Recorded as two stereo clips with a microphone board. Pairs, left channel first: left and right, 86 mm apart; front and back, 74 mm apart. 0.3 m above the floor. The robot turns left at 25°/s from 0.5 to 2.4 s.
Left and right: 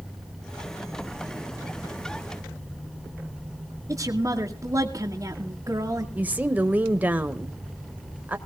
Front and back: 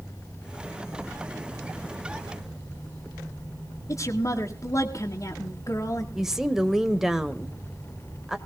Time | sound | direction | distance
3.9 | a woman speaking | 40° right | 2 m
6.2 | a woman speaking | 110° right | 0.9 m